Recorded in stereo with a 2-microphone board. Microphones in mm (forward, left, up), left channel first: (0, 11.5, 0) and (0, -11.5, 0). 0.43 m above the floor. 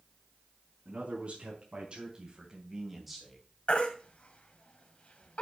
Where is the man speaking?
60° right (ahead or behind), 4 m; by 3.4 s 5° left (ahead or behind), 2.5 m.